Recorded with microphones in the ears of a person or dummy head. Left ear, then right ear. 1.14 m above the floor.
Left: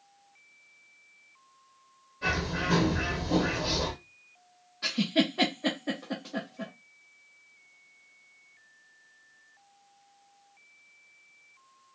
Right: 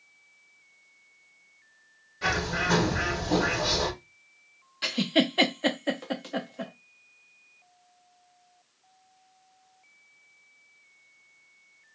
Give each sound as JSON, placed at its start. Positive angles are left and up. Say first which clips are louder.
{"t": 2.2, "sound": "a bird", "louder": "right 3 dB", "side_deg": -40, "distance_m": 1.1}
{"t": 4.8, "sound": "a giggle", "louder": "right 2 dB", "side_deg": -30, "distance_m": 0.6}